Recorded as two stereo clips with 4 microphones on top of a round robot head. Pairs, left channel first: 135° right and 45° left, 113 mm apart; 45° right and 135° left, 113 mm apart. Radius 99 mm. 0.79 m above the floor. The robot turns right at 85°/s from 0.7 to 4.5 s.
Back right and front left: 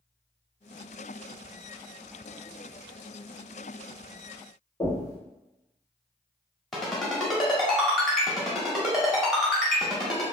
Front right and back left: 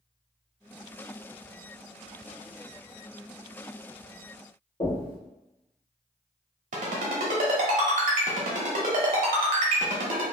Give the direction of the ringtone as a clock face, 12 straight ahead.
7 o'clock.